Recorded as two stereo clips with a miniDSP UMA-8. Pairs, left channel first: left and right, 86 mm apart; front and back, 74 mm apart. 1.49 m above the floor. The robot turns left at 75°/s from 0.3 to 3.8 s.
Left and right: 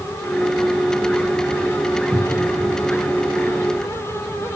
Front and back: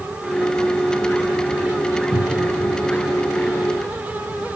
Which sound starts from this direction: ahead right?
A cupboard door, at 2.1 s.